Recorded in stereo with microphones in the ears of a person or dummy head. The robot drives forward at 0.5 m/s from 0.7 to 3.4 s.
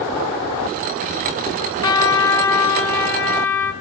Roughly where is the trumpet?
Left.